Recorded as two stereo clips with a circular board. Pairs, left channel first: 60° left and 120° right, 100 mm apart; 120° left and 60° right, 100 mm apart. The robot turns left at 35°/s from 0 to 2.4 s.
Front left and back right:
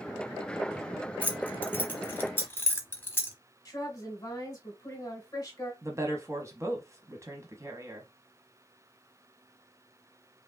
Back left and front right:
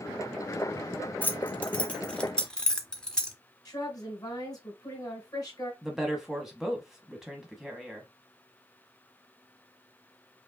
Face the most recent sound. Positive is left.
turn(degrees=-140)